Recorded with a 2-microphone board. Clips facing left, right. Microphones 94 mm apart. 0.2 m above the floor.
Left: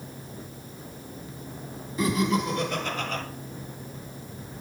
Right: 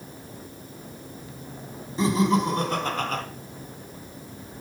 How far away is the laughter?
About 1.7 m.